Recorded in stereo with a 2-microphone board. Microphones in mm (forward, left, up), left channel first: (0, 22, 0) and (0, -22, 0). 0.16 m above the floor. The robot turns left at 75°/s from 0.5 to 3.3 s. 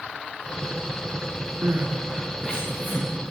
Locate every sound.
1.6 s crying: 55° right (ahead or behind), 6 m; by 3.1 s 55° left (ahead or behind), 6 m